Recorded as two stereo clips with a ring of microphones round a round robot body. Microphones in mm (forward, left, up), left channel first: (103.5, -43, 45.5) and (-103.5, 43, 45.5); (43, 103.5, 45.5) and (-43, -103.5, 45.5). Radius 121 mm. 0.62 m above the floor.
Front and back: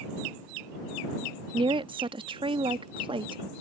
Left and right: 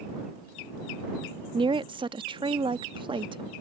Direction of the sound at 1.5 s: 160° right.